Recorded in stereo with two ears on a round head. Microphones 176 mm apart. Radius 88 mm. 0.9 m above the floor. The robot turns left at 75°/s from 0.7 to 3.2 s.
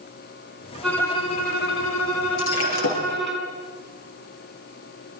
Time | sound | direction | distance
0.8 | a violin | straight behind | 6 m
2.4 | breaking glass | 105° left | 6.5 m